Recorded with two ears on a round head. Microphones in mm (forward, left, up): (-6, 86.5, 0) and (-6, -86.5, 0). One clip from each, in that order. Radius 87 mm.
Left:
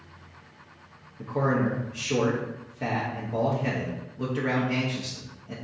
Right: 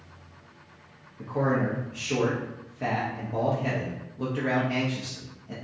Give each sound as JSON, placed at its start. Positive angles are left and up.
{"t": 1.2, "sound": "a man speaking", "side_deg": 0, "distance_m": 0.6}